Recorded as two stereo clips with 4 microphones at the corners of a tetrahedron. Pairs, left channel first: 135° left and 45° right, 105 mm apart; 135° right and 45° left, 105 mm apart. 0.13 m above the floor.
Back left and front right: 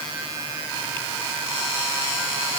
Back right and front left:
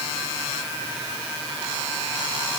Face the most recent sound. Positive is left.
No sound to turn to.